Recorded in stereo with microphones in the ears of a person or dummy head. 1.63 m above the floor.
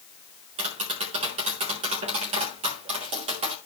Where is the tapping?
30° right (ahead or behind), 1.4 m.